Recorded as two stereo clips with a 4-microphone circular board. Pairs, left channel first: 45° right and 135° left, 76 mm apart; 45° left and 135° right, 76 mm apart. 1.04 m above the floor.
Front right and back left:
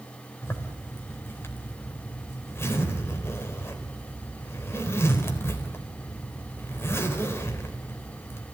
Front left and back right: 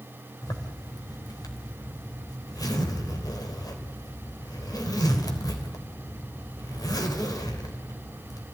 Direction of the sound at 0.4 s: 10° left.